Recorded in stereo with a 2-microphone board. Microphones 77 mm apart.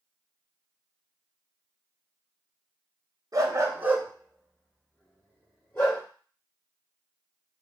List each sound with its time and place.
3.3 s a dog barking: 50° right (ahead or behind), 0.7 m; by 6.0 s 35° left (ahead or behind), 1.5 m